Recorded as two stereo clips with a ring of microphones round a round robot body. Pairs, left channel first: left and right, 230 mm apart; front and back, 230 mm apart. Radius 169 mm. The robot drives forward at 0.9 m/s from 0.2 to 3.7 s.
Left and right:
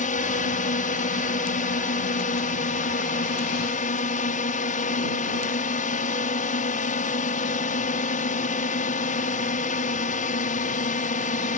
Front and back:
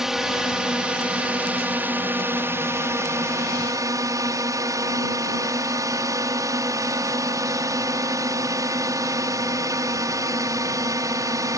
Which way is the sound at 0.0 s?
95° left.